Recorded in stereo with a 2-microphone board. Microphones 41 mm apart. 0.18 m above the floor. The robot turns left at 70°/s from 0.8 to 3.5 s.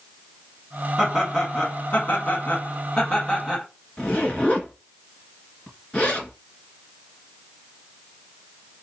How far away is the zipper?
About 1.7 m.